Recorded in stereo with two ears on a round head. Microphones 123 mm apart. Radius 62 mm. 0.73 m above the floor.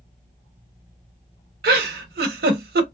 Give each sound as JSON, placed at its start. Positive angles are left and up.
{"t": 1.6, "sound": "a giggle", "side_deg": -75, "distance_m": 0.7}